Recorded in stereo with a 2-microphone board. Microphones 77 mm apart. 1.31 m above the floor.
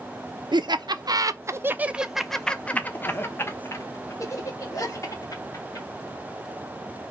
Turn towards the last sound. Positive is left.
turn(degrees=50)  # may be behind; listen again after turning